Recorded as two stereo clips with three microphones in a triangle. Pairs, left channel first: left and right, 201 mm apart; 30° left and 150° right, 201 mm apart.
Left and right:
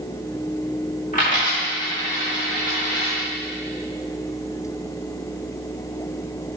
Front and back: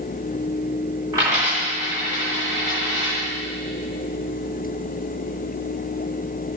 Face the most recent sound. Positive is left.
turn(degrees=140)